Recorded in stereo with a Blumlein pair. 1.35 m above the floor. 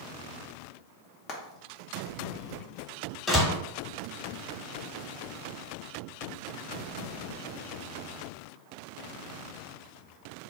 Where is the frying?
30° left, 0.8 m.